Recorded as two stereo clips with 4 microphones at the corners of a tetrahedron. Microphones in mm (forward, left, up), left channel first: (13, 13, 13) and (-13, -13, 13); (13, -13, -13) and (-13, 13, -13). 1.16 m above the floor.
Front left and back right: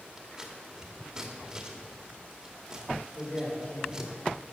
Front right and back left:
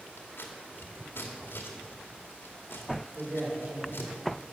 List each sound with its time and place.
0.2 s scissors: 60° right, 2 m
3.1 s a man speaking: 90° left, 4.5 m